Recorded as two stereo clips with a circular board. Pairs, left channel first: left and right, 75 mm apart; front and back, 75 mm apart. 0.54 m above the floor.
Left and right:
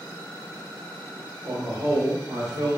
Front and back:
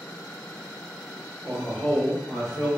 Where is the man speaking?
60° right, 2.5 m; by 2.7 s 100° right, 2.5 m.